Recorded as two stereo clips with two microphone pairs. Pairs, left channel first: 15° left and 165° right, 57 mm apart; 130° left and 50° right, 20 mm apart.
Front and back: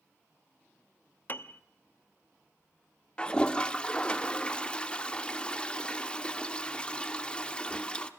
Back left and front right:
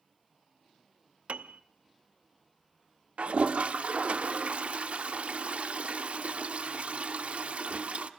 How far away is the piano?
About 0.7 m.